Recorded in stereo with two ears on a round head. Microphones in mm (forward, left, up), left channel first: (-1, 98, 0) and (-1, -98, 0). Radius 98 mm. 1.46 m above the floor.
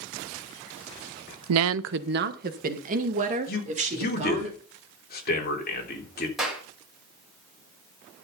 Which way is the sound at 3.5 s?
45° left (ahead or behind).